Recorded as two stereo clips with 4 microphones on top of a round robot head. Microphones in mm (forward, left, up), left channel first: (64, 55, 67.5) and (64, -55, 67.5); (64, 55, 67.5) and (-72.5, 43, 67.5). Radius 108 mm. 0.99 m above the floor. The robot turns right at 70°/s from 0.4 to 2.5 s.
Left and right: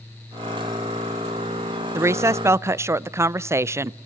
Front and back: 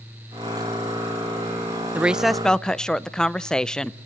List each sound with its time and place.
1.9 s a woman speaking: 110° right, 0.5 m; by 4.1 s 75° right, 0.5 m